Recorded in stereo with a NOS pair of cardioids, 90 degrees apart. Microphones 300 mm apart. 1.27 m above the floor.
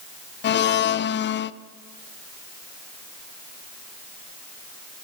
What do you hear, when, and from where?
0.4 s a blender: 40° left, 0.5 m